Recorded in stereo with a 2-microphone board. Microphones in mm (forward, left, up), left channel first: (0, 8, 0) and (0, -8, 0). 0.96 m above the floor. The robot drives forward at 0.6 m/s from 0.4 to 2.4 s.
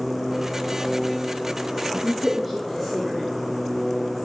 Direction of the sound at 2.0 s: Centre (ahead or behind).